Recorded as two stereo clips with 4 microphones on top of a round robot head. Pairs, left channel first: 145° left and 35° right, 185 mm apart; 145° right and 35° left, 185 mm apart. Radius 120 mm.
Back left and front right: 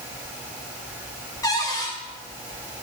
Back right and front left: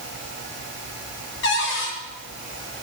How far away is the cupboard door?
About 1.3 m.